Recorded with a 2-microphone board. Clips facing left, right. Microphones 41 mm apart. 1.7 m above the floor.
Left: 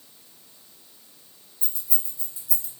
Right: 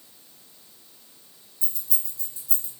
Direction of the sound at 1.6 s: 25° left (ahead or behind).